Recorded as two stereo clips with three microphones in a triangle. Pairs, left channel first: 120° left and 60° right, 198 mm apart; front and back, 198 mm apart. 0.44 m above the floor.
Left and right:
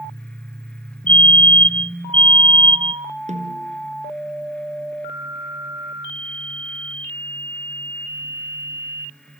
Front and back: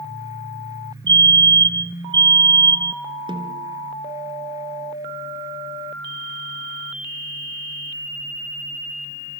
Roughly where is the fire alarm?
Behind.